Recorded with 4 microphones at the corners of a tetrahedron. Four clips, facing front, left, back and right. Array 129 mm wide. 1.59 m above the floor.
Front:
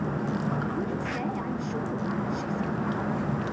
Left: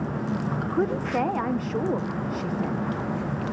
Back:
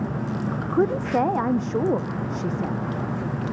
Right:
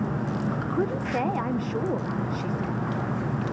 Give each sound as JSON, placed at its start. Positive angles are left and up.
{"t": 0.7, "sound": "a woman speaking", "azimuth_deg": 180, "distance_m": 0.7}